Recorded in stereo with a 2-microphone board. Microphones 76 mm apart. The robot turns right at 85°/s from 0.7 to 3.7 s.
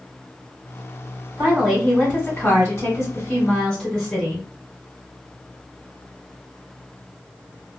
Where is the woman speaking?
35° right, 1.7 m; by 4.5 s 160° left, 1.7 m.